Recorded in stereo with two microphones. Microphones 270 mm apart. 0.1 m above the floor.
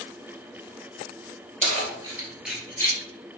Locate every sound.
1.6 s keys jangling: 30° right (ahead or behind), 1.4 m; by 3.0 s 15° left (ahead or behind), 1.3 m